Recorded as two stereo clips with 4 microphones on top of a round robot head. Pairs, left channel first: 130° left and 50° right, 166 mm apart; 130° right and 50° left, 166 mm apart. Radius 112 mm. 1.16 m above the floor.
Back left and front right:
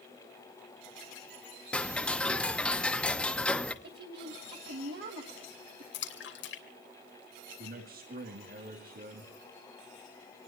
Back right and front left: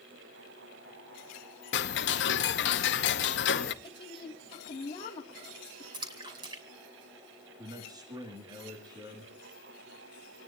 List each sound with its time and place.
1.7 s ticking: 145° right, 0.9 m
3.8 s a woman speaking: 70° right, 2.5 m
5.9 s a splash: 115° left, 2.5 m
7.6 s a man speaking: 20° right, 2.5 m